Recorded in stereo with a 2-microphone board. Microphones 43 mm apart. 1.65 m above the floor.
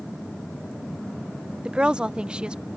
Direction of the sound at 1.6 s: 20° right (ahead or behind).